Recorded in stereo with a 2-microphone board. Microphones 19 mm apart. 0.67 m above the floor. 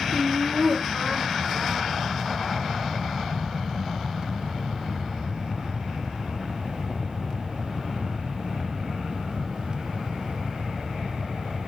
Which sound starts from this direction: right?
Laughter, at 0.1 s.